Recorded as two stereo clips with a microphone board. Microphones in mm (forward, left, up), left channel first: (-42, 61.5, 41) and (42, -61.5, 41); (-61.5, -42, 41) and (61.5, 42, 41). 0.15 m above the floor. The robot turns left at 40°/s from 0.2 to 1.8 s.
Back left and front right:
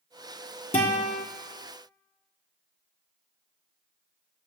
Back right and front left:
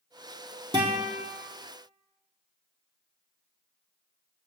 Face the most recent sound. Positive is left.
turn(degrees=50)